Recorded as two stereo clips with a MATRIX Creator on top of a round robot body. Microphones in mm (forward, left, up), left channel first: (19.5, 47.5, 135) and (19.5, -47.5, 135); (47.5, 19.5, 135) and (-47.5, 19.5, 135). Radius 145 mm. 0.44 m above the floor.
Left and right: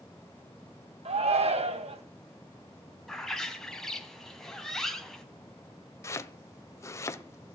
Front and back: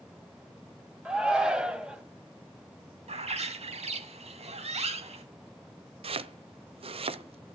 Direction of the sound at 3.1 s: 175° left.